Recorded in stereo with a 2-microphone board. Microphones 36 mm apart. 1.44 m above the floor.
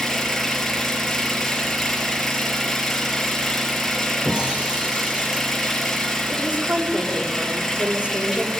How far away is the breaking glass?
About 8.5 m.